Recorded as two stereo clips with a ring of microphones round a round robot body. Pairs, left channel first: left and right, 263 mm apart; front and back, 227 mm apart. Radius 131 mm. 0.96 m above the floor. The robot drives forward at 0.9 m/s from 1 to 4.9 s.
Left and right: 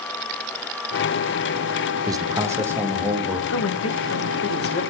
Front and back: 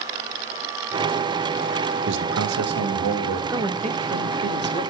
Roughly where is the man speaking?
Behind.